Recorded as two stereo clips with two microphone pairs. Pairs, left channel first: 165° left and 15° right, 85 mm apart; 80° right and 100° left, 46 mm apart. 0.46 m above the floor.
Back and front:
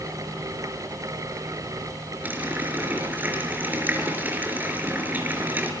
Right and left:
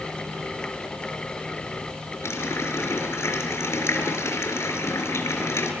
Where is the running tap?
85° right, 5.5 m.